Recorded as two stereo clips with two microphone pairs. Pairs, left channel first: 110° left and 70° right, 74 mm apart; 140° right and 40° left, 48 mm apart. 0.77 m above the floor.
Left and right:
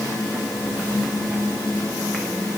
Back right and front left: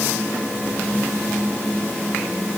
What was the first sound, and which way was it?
Only background noise.